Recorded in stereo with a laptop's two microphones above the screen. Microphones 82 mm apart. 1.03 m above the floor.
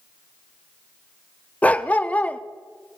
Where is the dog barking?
20° left (ahead or behind), 0.6 m.